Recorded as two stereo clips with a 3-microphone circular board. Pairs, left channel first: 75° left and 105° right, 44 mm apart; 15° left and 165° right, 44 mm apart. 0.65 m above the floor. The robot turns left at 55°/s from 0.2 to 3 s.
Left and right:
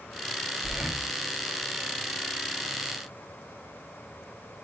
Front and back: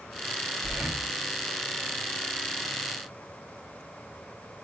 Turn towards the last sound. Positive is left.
turn(degrees=70)